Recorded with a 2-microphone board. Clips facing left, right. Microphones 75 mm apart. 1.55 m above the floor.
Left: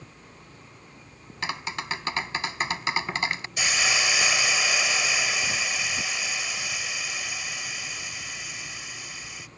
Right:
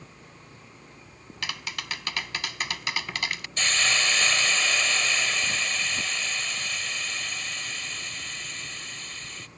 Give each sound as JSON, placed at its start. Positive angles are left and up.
{"t": 1.4, "sound": "tapping", "side_deg": 25}
{"t": 3.6, "sound": "a hiss", "side_deg": 10}